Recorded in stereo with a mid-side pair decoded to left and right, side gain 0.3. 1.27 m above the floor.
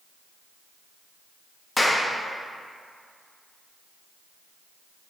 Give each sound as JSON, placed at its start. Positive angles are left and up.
{"t": 1.8, "sound": "a clap", "azimuth_deg": 20, "distance_m": 1.4}